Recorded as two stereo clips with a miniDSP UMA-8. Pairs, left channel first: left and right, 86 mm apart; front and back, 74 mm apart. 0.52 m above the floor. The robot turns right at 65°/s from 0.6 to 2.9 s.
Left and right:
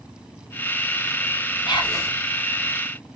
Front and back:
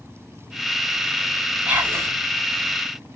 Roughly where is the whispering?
Left.